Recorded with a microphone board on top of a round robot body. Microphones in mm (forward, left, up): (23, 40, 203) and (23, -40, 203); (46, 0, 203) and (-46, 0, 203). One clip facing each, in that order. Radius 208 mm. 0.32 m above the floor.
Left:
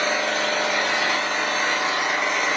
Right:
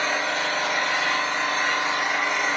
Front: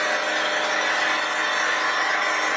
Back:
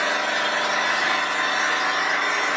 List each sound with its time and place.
0.0 s an engine running: 95° left, 0.7 m